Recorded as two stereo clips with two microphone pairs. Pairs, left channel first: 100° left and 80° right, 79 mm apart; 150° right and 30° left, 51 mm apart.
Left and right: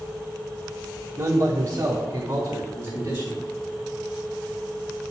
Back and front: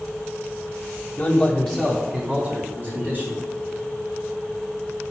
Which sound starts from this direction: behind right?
A man speaking, at 1.2 s.